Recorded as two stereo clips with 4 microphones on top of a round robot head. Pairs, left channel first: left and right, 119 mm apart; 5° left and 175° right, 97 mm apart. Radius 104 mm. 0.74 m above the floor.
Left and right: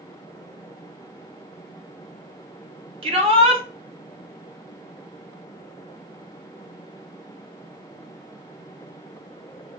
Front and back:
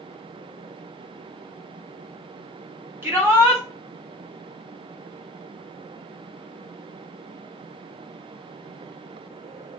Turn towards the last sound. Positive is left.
turn(degrees=-110)